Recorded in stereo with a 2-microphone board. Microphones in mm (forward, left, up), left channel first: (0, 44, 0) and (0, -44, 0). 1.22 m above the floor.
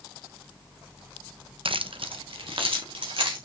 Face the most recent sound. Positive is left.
turn(degrees=-80)